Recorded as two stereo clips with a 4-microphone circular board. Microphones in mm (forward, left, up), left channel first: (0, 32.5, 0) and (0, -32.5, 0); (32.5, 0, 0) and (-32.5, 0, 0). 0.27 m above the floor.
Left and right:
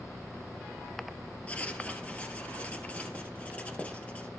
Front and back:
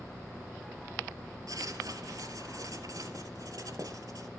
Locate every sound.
1.5 s writing: 155° left, 1.6 m